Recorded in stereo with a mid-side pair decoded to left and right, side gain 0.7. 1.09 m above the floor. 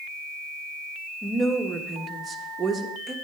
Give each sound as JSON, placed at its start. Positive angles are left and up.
{"t": 1.2, "sound": "a woman speaking", "azimuth_deg": -20, "distance_m": 1.2}